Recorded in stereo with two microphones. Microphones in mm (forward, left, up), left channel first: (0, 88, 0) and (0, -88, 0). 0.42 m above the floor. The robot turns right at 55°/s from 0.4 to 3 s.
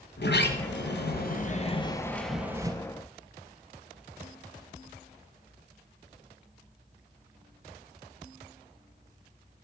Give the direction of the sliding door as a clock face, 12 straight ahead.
10 o'clock.